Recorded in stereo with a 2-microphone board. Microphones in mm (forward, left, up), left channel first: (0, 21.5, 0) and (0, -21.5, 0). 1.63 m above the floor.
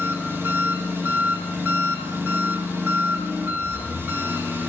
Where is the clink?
No clink in this recording.